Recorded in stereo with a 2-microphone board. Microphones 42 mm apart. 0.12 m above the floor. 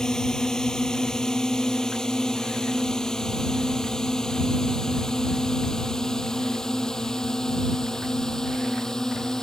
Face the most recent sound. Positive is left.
turn(degrees=10)  # may be behind; listen again after turning